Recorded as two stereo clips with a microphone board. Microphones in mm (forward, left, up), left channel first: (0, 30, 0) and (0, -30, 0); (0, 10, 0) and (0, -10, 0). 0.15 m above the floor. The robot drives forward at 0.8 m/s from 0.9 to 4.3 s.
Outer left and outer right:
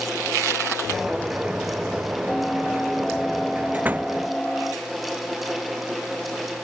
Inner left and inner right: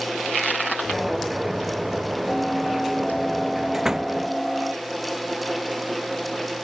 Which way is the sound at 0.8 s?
5° right (ahead or behind).